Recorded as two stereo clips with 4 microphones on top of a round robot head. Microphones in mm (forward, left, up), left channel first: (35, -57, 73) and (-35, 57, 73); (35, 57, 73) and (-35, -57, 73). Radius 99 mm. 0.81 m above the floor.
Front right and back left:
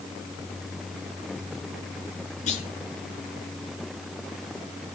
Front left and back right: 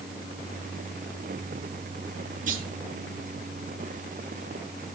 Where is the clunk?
95° right, 6.5 m.